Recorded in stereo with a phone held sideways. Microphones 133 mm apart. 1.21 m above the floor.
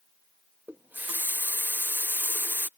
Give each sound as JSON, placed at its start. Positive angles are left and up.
{"t": 0.7, "sound": "a running tap", "side_deg": -15}